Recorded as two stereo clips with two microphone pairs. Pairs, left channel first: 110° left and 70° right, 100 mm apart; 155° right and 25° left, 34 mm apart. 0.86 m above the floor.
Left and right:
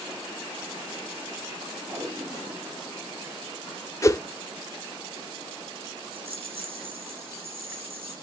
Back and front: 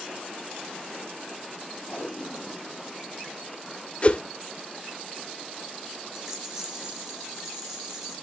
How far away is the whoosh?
About 0.5 m.